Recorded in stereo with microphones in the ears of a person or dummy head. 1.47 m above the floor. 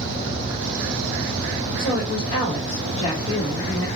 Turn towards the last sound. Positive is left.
turn(degrees=10)  # may be behind; listen again after turning